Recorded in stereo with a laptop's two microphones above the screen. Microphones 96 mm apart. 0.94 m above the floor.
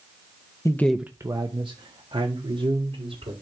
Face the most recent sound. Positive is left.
turn(degrees=-80)